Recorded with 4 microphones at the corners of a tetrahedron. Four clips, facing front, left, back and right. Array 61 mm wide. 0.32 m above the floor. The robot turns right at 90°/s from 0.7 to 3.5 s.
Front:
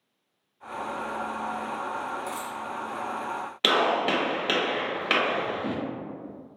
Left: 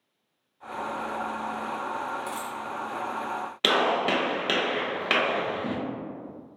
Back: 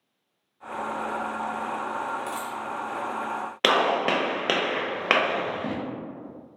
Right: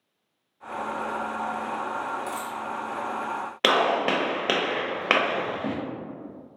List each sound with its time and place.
2.3 s a dropped coin: 175° right, 1.3 m; by 2.6 s 145° right, 1.3 m
3.6 s a gunshot: 135° right, 0.5 m